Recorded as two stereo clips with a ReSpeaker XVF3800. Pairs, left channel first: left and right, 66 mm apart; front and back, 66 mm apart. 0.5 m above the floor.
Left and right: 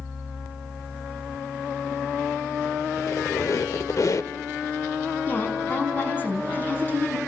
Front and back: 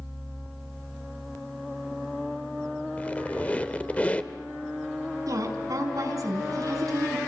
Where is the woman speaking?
150° left, 5 m.